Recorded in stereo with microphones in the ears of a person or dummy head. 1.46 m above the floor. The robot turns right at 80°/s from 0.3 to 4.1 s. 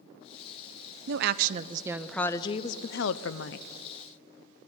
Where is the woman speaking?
85° right, 0.6 m; by 3.7 s 125° left, 0.6 m.